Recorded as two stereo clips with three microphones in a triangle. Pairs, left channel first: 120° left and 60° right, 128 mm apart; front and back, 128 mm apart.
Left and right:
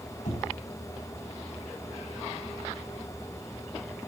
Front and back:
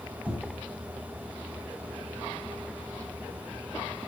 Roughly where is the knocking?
Left.